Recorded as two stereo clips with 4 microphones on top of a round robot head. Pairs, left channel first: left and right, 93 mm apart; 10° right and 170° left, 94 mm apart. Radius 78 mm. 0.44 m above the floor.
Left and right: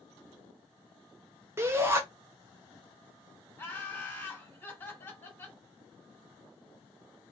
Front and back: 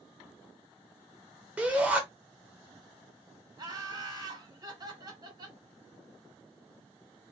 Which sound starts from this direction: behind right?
A shout, at 1.6 s.